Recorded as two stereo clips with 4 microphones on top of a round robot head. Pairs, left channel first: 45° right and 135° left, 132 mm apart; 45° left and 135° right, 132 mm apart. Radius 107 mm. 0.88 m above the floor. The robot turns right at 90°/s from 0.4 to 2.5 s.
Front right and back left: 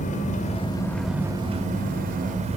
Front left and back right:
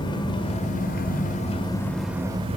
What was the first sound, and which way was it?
An engine running, 10° right.